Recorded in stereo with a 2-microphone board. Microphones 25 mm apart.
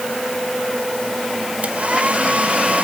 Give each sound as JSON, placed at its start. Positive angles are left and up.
{"t": 1.6, "sound": "a hair dryer", "side_deg": -70}